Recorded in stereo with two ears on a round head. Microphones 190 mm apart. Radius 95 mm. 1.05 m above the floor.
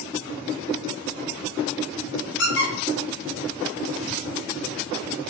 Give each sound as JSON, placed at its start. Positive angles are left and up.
{"t": 2.4, "sound": "a squeak", "side_deg": 60, "distance_m": 1.9}